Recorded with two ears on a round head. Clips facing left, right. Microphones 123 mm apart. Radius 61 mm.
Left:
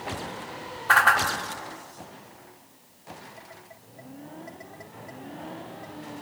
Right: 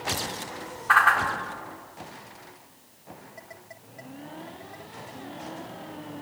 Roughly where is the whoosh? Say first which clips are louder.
Even; left.